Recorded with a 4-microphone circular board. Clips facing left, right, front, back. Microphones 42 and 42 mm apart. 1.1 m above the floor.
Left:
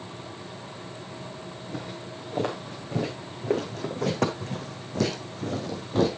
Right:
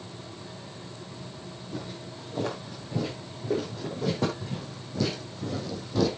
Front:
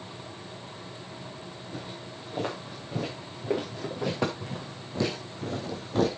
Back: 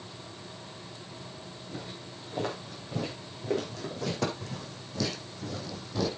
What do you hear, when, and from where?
1.7 s footsteps: 85° left, 5.5 m; by 6.1 s 40° left, 2.5 m